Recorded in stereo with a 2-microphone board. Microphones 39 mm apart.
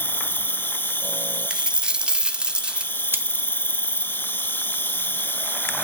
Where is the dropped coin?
25° right (ahead or behind), 0.6 m.